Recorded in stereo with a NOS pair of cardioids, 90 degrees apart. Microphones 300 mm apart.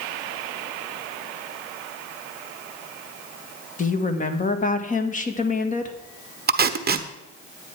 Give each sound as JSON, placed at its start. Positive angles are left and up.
{"t": 3.8, "sound": "a woman speaking", "azimuth_deg": 25, "distance_m": 1.6}
{"t": 6.5, "sound": "tape being pulled", "azimuth_deg": -35, "distance_m": 1.0}